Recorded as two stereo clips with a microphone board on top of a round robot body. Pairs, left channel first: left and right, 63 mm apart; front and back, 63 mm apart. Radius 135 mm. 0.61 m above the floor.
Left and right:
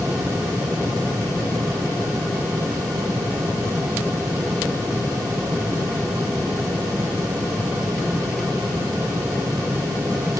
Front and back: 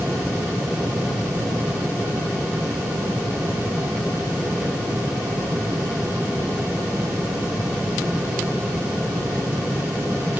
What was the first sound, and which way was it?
Only background noise.